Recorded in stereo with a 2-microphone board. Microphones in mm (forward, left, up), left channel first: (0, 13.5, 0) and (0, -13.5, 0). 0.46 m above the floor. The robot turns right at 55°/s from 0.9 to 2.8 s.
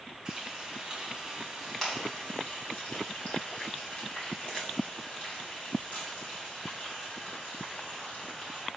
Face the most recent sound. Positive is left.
turn(degrees=60)  # may be behind; listen again after turning